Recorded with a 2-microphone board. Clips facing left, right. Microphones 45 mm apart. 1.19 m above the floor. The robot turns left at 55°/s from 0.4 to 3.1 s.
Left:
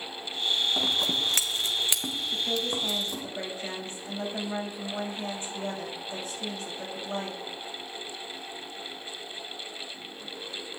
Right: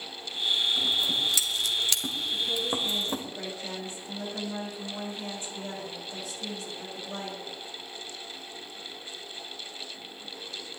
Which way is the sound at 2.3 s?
85° left.